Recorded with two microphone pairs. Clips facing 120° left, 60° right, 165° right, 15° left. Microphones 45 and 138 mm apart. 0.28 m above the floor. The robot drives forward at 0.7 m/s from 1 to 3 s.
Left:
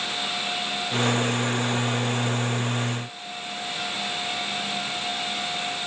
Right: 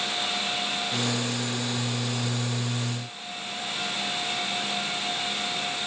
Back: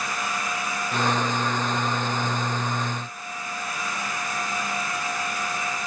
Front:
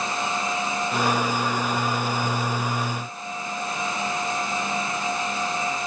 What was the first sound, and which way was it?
Only background noise.